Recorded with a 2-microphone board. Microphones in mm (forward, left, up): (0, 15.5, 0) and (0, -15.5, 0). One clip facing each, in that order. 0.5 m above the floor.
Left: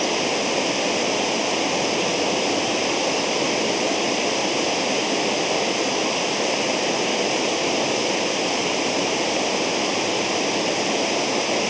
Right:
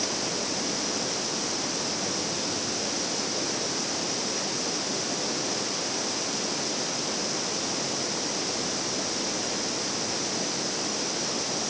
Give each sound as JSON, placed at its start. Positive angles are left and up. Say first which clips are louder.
{"t": 0.0, "sound": "running water", "louder": "left 9 dB", "side_deg": 85}